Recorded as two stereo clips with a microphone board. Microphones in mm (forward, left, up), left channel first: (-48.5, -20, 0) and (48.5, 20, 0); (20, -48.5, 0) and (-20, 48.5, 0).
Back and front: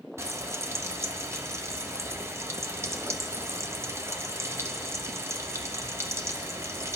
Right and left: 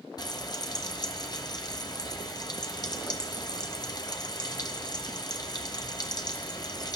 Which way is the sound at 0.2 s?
35° right.